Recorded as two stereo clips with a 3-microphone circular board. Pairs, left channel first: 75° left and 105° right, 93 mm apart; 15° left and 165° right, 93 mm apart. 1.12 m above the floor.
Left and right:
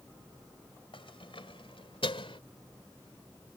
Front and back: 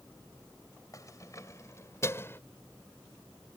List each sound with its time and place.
0.9 s keys jangling: 65° left; by 2.4 s 80° left